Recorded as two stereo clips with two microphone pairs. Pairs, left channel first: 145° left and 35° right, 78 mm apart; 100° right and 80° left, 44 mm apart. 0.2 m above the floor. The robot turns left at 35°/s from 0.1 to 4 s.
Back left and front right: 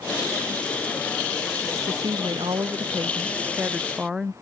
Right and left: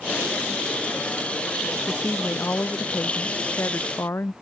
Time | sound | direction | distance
1.9 | a woman speaking | 40° right | ?